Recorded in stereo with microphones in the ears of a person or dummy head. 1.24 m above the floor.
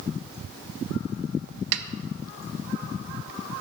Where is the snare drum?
70° right (ahead or behind), 0.6 m.